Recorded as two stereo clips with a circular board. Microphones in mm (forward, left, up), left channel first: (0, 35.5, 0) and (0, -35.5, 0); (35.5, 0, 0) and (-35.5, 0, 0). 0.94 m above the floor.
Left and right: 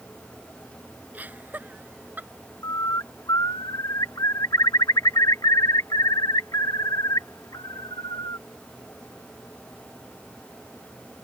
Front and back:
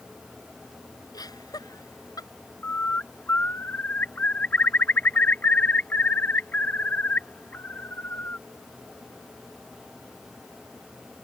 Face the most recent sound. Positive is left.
turn(degrees=65)